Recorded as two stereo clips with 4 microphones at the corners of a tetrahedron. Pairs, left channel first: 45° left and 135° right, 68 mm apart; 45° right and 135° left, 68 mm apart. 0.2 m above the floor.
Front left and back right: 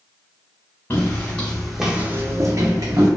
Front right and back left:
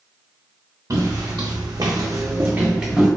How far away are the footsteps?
About 1.0 m.